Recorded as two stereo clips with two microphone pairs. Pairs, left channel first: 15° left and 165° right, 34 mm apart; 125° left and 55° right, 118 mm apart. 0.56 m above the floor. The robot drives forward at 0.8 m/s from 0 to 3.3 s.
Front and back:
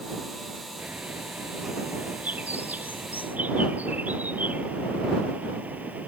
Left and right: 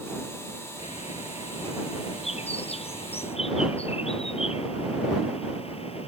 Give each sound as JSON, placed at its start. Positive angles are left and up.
{"t": 0.8, "sound": "a bird", "azimuth_deg": 150}